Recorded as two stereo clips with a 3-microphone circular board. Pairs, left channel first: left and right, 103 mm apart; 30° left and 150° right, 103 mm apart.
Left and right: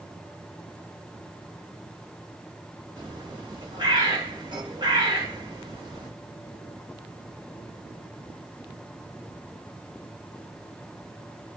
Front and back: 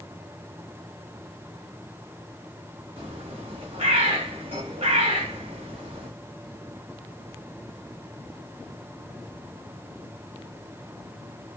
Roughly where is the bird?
Behind right.